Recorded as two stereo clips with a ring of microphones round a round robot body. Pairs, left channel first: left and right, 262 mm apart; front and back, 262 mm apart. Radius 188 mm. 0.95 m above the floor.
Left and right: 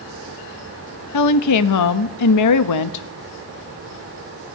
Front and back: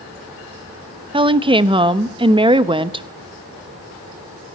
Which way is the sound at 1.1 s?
105° left.